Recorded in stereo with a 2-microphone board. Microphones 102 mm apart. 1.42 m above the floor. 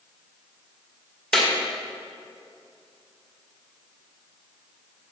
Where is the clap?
5° left (ahead or behind), 1.8 m.